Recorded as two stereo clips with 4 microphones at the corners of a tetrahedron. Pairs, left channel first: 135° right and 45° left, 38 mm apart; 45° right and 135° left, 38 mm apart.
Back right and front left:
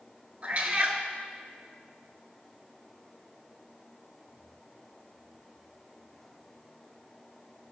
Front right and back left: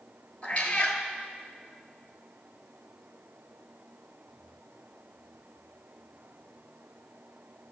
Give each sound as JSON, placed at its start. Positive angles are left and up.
{"t": 0.4, "sound": "a cat meowing", "azimuth_deg": 5, "distance_m": 1.0}